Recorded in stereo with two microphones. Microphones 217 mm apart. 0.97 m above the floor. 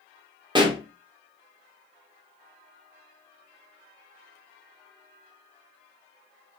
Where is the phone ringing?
I don't hear a phone ringing.